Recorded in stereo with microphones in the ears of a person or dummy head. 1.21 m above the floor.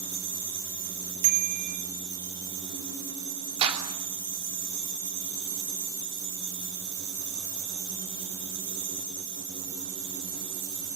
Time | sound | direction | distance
1.2 | a bicycle bell | 50° right (ahead or behind) | 2.5 m
3.6 | a clap | 30° right (ahead or behind) | 3 m